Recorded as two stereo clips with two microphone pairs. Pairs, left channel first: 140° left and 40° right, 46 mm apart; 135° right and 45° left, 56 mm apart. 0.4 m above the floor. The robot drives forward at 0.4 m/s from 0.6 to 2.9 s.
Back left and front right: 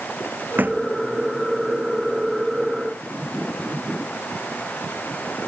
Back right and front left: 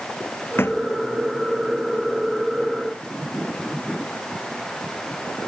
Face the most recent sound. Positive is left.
turn(degrees=-95)